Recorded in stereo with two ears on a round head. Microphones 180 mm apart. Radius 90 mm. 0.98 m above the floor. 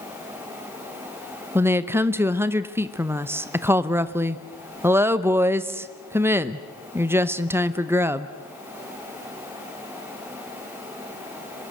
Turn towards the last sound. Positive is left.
turn(degrees=-10)  # may be behind; listen again after turning